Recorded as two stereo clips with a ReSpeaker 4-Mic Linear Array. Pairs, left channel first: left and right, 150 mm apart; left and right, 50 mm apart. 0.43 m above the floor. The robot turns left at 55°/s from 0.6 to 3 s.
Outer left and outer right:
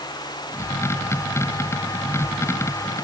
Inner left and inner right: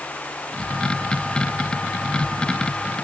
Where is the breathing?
No breathing in this recording.